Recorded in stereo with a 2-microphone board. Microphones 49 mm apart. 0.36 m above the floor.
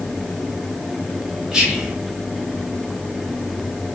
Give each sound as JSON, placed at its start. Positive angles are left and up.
{"t": 1.5, "sound": "whispering", "side_deg": -15, "distance_m": 1.5}